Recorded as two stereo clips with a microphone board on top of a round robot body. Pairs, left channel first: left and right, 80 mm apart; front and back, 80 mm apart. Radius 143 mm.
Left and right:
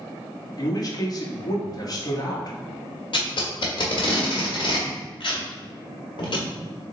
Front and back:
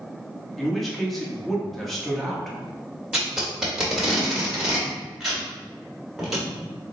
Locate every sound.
0.6 s a man speaking: 85° left, 1.0 m
3.1 s tape being pulled: 95° left, 1.1 m